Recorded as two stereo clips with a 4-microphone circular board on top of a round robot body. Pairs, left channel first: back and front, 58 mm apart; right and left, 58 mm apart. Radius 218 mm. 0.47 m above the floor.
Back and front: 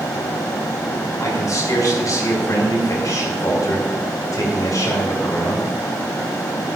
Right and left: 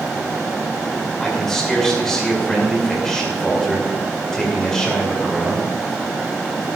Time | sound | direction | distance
1.2 | a man speaking | 170° right | 5.5 m